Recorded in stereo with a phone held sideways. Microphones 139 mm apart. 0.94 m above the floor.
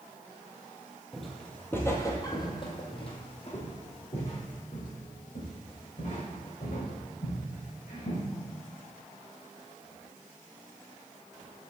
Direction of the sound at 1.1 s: Centre (ahead or behind).